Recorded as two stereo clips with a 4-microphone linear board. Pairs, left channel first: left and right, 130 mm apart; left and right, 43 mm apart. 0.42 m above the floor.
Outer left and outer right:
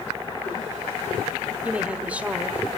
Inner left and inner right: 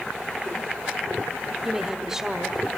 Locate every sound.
1.6 s a woman speaking: 10° right (ahead or behind), 1.2 m